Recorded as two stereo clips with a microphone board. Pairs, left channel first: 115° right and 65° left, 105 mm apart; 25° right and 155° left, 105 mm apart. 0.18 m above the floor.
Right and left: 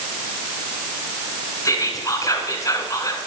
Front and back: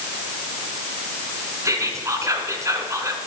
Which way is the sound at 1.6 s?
155° right.